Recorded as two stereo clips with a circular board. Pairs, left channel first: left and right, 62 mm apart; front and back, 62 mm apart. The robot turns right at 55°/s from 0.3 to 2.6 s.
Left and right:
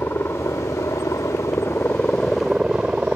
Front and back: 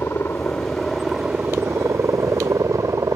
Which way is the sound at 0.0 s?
45° left.